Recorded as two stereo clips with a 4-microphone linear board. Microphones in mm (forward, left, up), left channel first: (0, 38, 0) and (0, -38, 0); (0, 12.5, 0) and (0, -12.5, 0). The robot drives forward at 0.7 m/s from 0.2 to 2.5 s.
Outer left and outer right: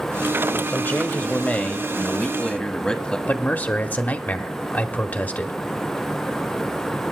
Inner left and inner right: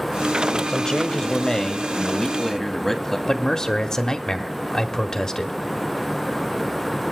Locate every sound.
0.7 s a man speaking: 25° left (ahead or behind), 0.9 m; by 3.2 s 10° left (ahead or behind), 1.8 m
3.3 s a man speaking: 20° left (ahead or behind), 0.9 m